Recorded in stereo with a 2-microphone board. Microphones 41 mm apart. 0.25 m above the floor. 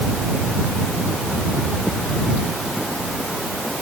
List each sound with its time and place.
Only background noise.